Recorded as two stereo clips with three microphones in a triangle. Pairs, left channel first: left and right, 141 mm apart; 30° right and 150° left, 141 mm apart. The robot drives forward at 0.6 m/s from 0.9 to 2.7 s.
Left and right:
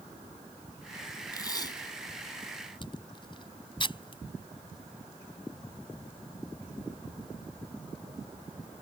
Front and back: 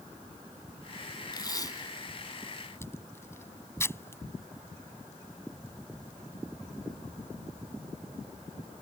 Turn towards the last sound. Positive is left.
turn(degrees=40)